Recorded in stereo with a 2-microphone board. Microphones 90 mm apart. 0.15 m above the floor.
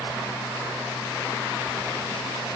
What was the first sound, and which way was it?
Only background noise.